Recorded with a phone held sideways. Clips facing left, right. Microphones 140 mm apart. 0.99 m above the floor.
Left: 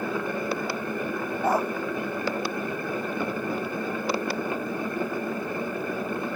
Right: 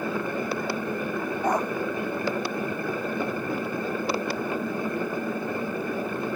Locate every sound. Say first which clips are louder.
1.4 s a dog barking: left 1 dB; 5° left (ahead or behind)